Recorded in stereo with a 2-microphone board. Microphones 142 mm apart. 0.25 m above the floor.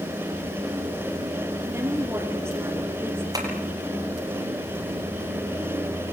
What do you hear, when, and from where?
1.7 s a woman speaking: 20° right (ahead or behind), 6 m
3.3 s tapping: 25° right (ahead or behind), 7.5 m